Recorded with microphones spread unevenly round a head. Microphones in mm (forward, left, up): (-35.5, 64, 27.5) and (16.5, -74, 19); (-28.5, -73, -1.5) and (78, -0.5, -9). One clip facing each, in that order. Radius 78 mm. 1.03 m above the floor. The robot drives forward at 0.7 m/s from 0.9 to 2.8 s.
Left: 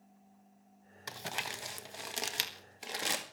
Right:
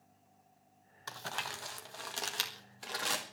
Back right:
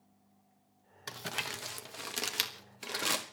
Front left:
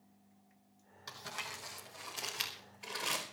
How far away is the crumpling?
About 0.8 m.